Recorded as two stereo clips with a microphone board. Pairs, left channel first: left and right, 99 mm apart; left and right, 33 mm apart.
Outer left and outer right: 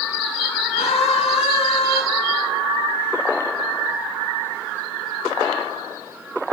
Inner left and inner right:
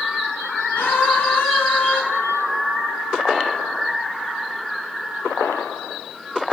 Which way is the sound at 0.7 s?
80° left.